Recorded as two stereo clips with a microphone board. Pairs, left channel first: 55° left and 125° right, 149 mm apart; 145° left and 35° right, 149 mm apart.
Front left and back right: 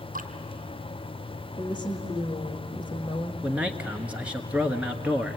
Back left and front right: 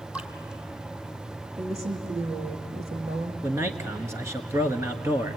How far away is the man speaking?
About 1.3 m.